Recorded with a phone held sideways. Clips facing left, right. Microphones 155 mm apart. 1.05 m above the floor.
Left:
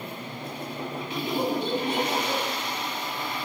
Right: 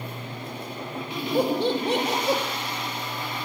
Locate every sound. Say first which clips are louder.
1.4 s laughter: right 5 dB; 70° right (ahead or behind), 1.9 m